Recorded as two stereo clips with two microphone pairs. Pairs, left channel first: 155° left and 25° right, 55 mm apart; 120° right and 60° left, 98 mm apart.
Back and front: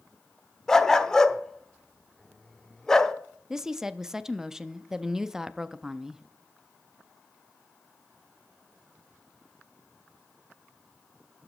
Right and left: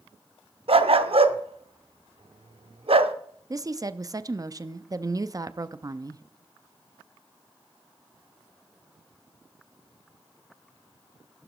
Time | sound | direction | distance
0.7 | a dog barking | 75° left | 0.7 m
3.5 | a woman speaking | 45° left | 0.5 m